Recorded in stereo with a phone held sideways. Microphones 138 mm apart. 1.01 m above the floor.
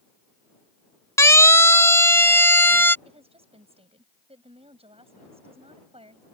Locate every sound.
1.2 s a siren: 20° left (ahead or behind); by 3.0 s 15° left (ahead or behind)
3.0 s a woman speaking: 45° right (ahead or behind)